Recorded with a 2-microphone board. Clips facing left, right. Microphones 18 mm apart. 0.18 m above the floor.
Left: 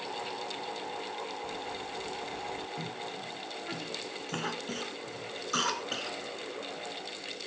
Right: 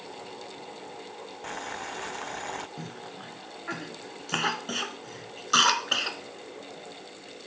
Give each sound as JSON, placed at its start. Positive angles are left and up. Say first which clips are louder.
{"t": 1.4, "sound": "boiling", "louder": "right 2 dB", "side_deg": -85}
{"t": 2.8, "sound": "a cough", "louder": "left 2 dB", "side_deg": -45}